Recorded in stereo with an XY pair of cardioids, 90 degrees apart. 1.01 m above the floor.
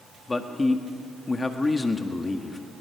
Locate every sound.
0.3 s a man speaking: 30° left, 1.6 m